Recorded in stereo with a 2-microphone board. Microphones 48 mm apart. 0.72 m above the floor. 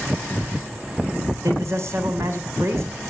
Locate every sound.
1.4 s a man speaking: 65° right (ahead or behind), 3 m